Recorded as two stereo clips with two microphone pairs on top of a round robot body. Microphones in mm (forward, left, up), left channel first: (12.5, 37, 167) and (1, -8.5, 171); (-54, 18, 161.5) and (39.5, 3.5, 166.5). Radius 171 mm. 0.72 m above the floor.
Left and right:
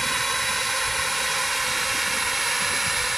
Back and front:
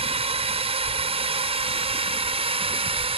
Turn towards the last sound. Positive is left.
turn(degrees=-15)